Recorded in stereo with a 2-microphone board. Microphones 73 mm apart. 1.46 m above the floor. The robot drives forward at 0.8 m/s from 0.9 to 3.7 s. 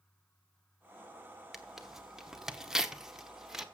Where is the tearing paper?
5° right (ahead or behind), 1.3 m.